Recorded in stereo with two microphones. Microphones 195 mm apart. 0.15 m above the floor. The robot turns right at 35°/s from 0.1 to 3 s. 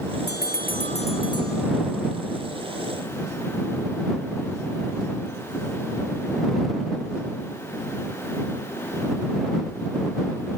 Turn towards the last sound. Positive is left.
turn(degrees=-145)